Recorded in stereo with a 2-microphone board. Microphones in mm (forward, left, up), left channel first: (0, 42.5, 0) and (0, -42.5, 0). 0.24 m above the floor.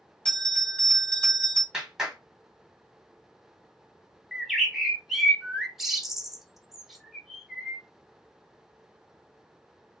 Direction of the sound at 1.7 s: 5° right (ahead or behind).